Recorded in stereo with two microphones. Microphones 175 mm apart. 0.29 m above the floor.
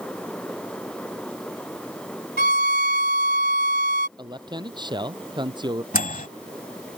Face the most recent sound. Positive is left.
turn(degrees=50)  # may be behind; listen again after turning